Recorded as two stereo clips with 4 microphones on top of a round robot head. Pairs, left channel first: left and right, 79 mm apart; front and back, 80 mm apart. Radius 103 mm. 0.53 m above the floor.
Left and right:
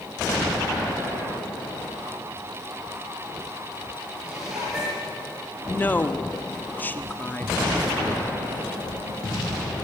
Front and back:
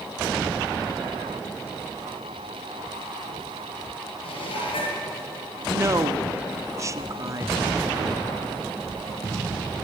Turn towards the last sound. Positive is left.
turn(degrees=145)